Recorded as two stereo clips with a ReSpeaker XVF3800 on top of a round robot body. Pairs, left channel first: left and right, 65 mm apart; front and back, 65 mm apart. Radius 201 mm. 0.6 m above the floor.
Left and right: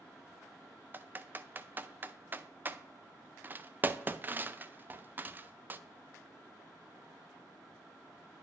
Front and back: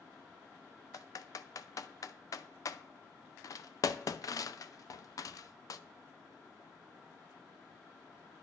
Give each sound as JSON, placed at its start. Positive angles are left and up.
{"t": 0.9, "sound": "typing on a keyboard", "azimuth_deg": -30, "distance_m": 0.5}